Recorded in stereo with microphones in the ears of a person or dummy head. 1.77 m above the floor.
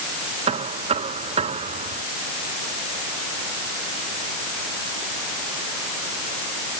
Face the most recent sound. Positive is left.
turn(degrees=-40)  # may be behind; listen again after turning